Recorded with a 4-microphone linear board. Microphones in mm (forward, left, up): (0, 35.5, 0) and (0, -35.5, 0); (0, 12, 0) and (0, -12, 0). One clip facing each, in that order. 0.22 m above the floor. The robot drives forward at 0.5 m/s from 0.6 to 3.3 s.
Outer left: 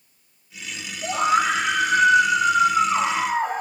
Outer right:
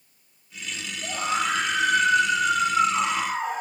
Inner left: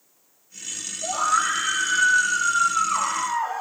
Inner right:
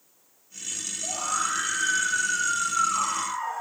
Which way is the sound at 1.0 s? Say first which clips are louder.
Outer left 7 dB, inner left 7 dB; 55° left (ahead or behind).